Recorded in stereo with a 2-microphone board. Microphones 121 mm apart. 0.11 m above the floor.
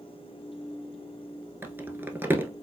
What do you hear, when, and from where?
1.6 s crumpling: 20° right (ahead or behind), 0.7 m